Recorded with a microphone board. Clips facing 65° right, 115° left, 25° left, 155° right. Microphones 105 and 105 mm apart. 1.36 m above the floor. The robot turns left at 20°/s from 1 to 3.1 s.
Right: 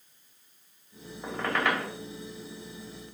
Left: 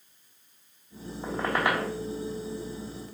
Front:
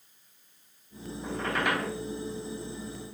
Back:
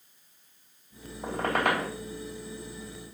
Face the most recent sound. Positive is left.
turn(degrees=155)